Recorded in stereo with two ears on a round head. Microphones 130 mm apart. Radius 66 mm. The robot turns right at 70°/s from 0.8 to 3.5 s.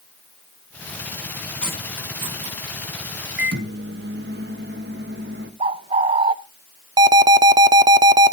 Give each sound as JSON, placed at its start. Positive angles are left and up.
{"t": 1.6, "sound": "cutlery clinking", "side_deg": 10, "distance_m": 7.0}
{"t": 3.4, "sound": "a microwave", "side_deg": -85, "distance_m": 1.6}
{"t": 5.6, "sound": "a bird", "side_deg": -40, "distance_m": 0.6}
{"t": 7.0, "sound": "an alarm", "side_deg": -25, "distance_m": 0.7}